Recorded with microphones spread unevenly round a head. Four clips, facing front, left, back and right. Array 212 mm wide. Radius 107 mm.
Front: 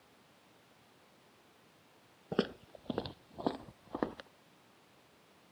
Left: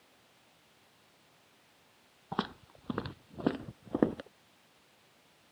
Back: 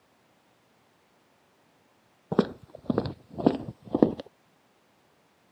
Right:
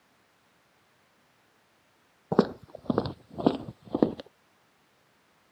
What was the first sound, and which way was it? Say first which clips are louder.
Footsteps: right 12 dB, back 9 dB; 130° right.